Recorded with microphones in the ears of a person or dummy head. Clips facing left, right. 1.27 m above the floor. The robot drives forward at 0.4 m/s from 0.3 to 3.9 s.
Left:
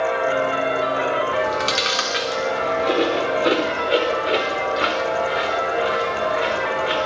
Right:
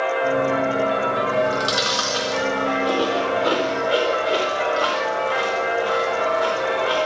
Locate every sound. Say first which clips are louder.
1.3 s chewing: right 1 dB; 30° left (ahead or behind), 3.5 m; by 7.1 s 25° left (ahead or behind), 4.5 m